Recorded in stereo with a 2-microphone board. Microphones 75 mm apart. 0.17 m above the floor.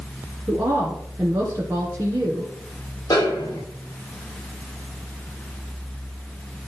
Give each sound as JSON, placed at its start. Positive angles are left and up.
{"t": 0.5, "sound": "a woman speaking", "side_deg": -35, "distance_m": 2.5}
{"t": 3.1, "sound": "a snare drum", "side_deg": 50, "distance_m": 7.5}